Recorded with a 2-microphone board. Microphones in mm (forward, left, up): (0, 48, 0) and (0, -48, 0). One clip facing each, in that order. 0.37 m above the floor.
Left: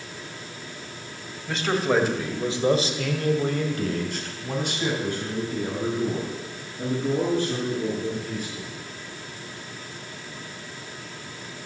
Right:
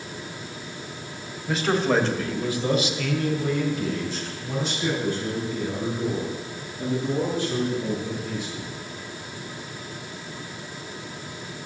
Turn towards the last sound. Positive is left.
turn(degrees=55)  # may be behind; listen again after turning